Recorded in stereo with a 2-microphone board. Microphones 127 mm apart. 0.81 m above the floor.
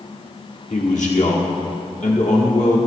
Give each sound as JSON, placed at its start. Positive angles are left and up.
{"t": 0.7, "sound": "a man speaking", "side_deg": 70, "distance_m": 1.7}